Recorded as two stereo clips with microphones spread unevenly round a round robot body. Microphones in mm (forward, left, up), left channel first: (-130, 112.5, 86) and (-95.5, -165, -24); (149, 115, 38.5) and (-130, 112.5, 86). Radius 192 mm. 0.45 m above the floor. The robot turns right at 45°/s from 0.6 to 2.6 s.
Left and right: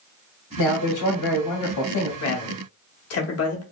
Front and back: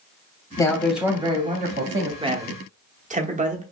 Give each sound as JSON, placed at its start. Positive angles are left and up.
{"t": 0.6, "sound": "a man speaking", "azimuth_deg": 65, "distance_m": 0.9}
{"t": 2.2, "sound": "a man speaking", "azimuth_deg": 105, "distance_m": 0.9}